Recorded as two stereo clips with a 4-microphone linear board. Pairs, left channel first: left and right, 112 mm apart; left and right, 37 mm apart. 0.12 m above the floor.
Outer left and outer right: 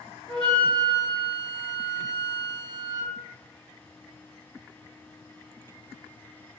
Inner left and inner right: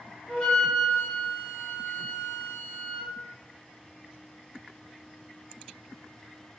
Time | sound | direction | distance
0.3 | a flute | 10° left (ahead or behind) | 1.6 m